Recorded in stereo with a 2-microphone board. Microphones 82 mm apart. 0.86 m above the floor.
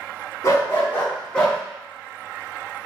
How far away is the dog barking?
About 1.6 m.